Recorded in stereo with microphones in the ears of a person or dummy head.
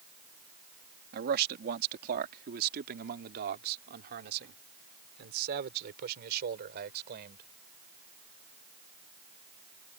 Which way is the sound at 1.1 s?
50° right (ahead or behind).